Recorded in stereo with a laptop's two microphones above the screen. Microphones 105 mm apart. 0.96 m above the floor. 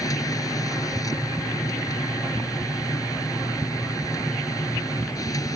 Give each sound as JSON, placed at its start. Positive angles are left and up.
{"t": 0.0, "sound": "a machine running", "side_deg": 35}